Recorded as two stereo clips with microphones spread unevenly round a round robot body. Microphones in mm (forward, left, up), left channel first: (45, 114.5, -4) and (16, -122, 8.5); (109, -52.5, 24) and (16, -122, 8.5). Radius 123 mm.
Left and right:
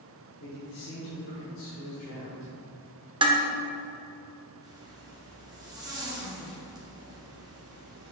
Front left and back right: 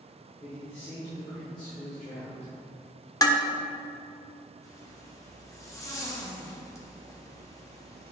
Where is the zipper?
25° right, 1.4 m.